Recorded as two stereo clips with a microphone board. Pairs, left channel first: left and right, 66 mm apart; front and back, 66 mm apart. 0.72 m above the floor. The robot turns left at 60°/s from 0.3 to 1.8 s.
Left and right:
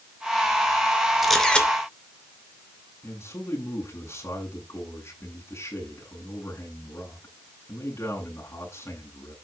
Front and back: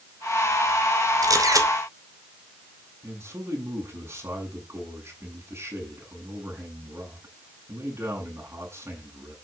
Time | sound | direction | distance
1.2 | a camera shutter | 175° right | 2.5 m
3.0 | a man speaking | 130° left | 8 m